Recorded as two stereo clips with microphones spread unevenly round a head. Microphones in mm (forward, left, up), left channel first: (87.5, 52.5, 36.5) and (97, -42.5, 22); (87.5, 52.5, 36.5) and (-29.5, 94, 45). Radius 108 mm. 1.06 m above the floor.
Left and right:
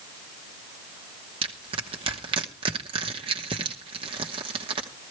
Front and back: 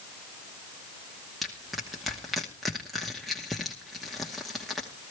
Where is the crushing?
110° right, 1.1 m.